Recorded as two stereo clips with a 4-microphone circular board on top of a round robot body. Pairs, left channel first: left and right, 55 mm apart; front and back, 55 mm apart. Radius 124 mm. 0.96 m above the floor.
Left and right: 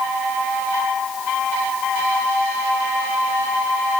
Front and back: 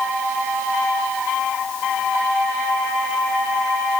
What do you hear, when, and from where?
Only background noise.